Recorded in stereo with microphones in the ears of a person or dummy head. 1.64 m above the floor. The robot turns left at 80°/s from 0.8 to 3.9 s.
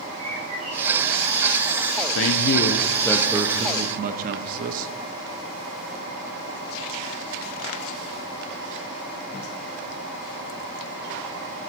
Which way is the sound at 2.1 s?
95° left.